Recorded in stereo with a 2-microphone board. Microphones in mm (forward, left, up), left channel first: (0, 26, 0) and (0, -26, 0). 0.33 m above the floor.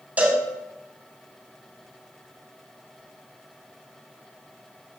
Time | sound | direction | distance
0.2 | a cowbell | 25° right (ahead or behind) | 2.5 m